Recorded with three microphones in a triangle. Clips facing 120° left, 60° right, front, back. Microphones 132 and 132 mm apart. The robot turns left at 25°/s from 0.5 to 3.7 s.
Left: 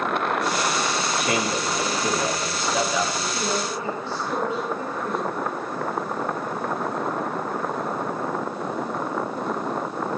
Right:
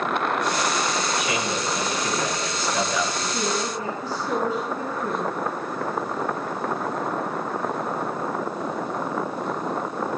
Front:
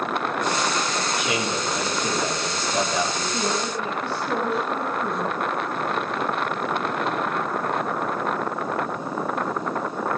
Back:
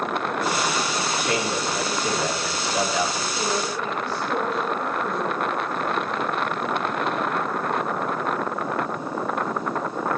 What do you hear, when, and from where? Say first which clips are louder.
1.2 s a man speaking: left 2 dB, back 1 dB; 85° left, 5.5 m; by 3.2 s 35° left, 5.5 m
3.3 s a woman speaking: even, front 1 dB; straight ahead, 5.5 m; by 5.3 s 10° right, 5.5 m